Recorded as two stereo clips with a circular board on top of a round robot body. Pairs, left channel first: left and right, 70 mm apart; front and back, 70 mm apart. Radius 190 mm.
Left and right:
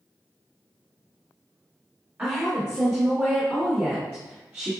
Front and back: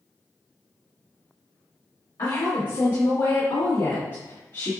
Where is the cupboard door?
I don't hear a cupboard door.